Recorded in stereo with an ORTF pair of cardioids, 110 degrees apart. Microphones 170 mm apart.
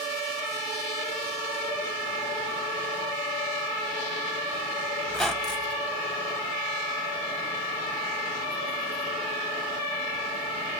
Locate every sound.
5.1 s a squeak: 5° left, 0.9 m